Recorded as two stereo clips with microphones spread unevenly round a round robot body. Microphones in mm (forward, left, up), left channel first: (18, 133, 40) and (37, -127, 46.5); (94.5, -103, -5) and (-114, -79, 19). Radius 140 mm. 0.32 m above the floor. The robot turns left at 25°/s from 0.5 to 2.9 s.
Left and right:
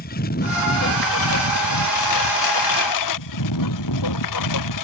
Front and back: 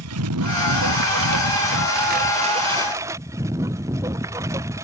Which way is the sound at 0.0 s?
155° left.